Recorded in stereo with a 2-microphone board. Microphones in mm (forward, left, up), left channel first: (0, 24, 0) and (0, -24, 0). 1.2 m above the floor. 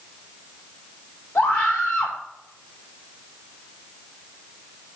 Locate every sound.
1.4 s a scream: 50° left (ahead or behind), 4 m